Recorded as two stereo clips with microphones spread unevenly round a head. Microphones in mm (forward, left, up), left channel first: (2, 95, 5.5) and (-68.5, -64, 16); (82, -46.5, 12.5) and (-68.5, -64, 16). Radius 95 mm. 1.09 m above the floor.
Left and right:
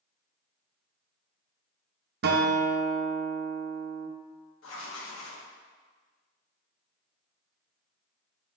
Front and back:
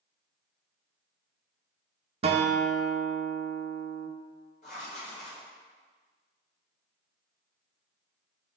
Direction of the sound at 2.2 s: 125° right.